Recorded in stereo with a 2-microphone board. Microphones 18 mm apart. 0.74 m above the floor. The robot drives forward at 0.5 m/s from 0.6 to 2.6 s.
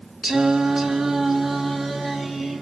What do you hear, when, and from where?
0.2 s singing: 40° right (ahead or behind), 0.6 m; by 2.6 s 15° right (ahead or behind), 1.5 m